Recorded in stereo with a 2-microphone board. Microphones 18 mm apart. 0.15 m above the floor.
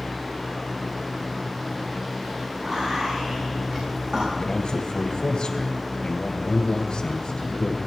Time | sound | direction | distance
2.6 | whispering | 50° right (ahead or behind) | 7.5 m
4.4 | a man speaking | 55° left (ahead or behind) | 3 m